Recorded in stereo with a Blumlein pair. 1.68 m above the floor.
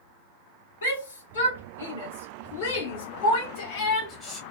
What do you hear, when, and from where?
0.8 s a shout: 65° left, 1.9 m; by 4.4 s 5° right, 0.6 m